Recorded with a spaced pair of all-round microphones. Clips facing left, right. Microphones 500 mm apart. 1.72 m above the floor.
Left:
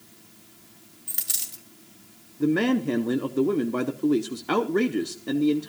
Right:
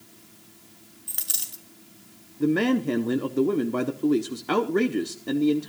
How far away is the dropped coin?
About 2.0 m.